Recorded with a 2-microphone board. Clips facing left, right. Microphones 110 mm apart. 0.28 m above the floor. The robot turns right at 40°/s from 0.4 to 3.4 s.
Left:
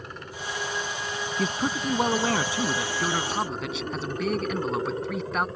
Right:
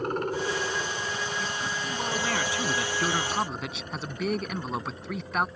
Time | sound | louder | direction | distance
0.0 | a helicopter | right 10 dB | 55° right (ahead or behind) | ?
1.4 | a man speaking | left 5 dB | 105° left | ?